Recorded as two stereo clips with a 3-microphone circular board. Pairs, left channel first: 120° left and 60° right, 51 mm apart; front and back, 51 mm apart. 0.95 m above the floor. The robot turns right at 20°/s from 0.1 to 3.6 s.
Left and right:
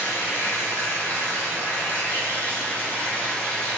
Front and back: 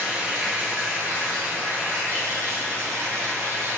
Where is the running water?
120° left, 1.4 m; by 3.8 s 170° right, 1.4 m.